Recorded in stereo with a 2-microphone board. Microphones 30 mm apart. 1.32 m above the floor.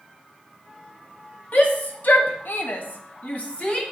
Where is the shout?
60° left (ahead or behind), 2 m; by 3.8 s 35° left (ahead or behind), 2.0 m.